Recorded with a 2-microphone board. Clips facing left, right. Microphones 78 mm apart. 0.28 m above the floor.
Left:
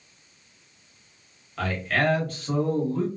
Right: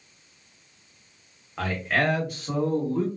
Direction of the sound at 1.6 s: 20° right (ahead or behind).